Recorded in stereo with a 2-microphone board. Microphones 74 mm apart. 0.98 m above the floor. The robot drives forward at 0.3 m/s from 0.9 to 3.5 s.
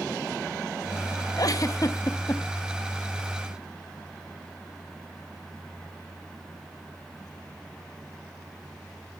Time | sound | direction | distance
1.4 | a giggle | 55° left (ahead or behind) | 0.7 m